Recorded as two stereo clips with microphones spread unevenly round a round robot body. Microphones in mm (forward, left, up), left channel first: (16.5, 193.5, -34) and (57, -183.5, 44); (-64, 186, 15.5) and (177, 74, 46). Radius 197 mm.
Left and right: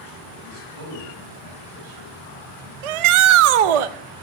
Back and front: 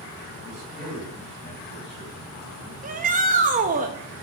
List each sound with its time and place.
0.4 s a man speaking: 130° right, 4.5 m
2.8 s a shout: 95° right, 0.8 m